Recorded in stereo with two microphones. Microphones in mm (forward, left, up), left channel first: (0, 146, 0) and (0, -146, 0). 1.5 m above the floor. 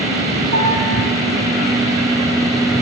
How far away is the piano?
About 4.5 m.